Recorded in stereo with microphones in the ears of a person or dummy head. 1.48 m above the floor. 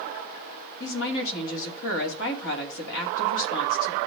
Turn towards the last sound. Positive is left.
turn(degrees=75)  # may be behind; listen again after turning